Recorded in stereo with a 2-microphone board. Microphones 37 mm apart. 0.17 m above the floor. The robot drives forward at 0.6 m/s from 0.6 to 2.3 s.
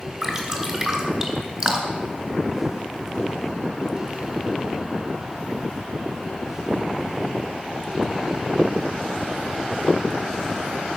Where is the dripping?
20° right (ahead or behind), 3 m; by 2.1 s 25° right (ahead or behind), 2 m.